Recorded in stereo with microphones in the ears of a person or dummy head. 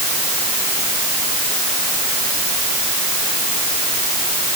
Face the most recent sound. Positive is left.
No sound to turn to.